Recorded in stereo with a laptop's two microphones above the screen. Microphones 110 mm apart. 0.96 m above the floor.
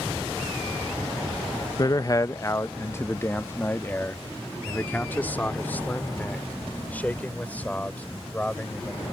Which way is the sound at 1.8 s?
35° left (ahead or behind).